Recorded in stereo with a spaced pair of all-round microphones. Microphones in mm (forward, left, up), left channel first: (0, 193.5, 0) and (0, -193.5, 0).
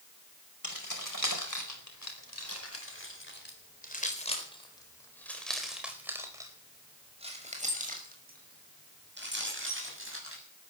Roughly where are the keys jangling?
Left.